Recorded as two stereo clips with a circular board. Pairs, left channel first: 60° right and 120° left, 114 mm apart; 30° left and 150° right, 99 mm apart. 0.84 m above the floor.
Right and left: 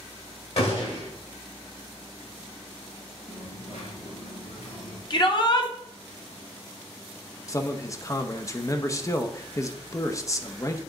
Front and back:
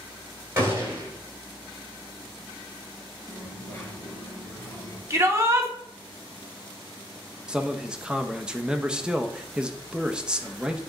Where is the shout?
95° right, 1.3 m.